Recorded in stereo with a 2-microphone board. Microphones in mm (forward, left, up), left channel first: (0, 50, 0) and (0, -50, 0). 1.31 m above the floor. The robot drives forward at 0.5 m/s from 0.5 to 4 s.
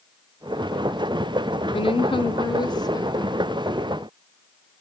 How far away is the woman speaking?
About 0.6 m.